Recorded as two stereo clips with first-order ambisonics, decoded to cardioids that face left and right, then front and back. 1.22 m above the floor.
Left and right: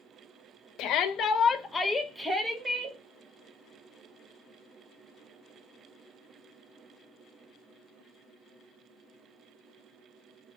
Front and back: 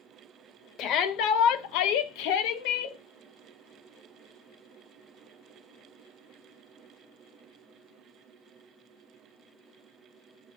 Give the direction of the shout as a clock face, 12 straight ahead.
10 o'clock.